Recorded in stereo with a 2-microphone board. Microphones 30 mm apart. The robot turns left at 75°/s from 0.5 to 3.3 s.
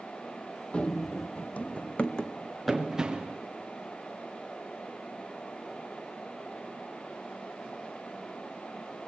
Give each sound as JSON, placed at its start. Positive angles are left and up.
{"t": 0.7, "sound": "running footsteps", "side_deg": 40, "distance_m": 0.6}